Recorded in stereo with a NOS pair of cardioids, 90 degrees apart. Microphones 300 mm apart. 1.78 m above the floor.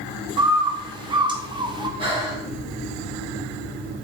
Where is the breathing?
15° right, 2.5 m.